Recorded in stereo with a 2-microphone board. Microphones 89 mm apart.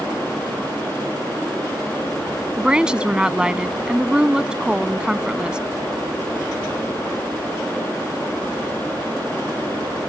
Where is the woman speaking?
10° right (ahead or behind).